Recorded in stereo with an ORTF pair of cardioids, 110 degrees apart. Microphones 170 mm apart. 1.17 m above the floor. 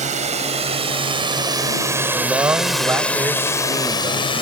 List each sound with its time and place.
0.0 s a drone: 45° right; by 4.4 s 30° left
2.1 s a man speaking: 15° right